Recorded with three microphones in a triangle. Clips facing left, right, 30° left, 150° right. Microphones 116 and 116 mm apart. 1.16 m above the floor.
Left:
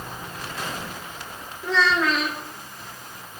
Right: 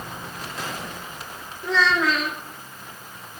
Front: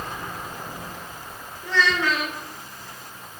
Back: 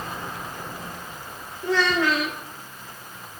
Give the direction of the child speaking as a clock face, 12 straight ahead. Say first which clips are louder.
Even, back 2 dB; 6 o'clock.